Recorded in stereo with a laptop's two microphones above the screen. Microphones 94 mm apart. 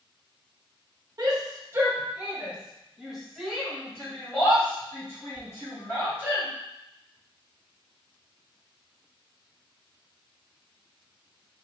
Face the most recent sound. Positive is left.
turn(degrees=25)  # may be behind; listen again after turning